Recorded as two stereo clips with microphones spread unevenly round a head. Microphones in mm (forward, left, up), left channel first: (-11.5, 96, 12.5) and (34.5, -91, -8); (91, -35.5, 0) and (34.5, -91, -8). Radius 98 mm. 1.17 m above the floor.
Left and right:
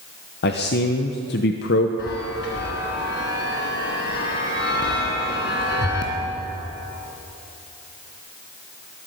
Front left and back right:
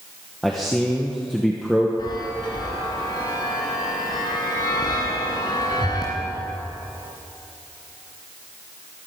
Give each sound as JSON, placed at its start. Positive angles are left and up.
{"t": 0.4, "sound": "a man speaking", "azimuth_deg": 135, "distance_m": 0.8}
{"t": 2.0, "sound": "a chime", "azimuth_deg": 75, "distance_m": 3.0}